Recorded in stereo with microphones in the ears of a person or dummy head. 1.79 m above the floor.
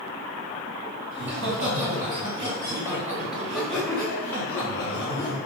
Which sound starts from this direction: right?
Laughter, at 1.1 s.